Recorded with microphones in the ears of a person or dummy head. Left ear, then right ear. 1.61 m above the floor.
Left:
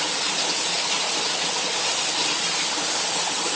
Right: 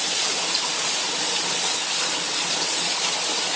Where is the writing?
No writing in this recording.